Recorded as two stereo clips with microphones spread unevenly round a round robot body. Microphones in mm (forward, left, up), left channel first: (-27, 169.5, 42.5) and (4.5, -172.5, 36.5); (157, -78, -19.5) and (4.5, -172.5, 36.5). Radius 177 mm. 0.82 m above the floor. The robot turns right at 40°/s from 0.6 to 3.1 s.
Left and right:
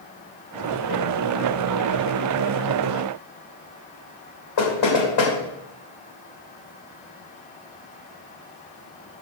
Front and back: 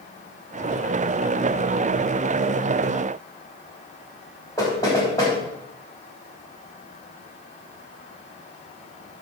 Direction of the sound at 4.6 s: 110° left.